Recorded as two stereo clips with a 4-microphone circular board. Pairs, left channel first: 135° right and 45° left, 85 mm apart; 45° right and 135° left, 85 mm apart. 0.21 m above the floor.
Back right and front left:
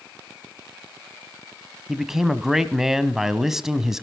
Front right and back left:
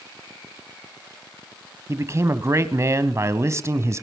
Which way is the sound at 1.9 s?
125° left.